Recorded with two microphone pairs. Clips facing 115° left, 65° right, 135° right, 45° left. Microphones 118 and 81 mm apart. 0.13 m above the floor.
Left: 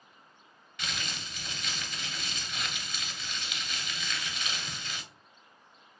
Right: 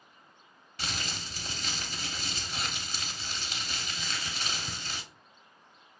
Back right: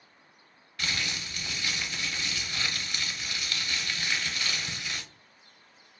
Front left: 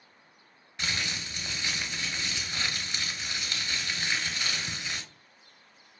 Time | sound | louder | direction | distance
0.8 | crumpling | right 1 dB, even | 20° right | 0.9 m